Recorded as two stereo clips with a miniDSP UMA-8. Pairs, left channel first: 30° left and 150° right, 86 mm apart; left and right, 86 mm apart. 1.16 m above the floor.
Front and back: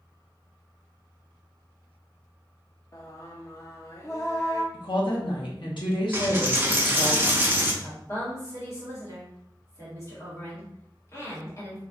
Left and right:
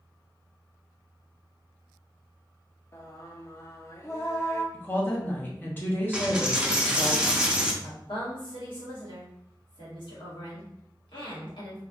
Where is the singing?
55° left, 0.6 m.